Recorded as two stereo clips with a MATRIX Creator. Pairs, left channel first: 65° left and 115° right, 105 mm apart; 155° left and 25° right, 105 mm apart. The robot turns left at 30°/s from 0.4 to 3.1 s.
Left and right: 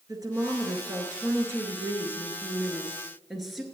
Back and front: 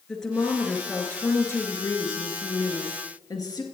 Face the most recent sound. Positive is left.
turn(degrees=160)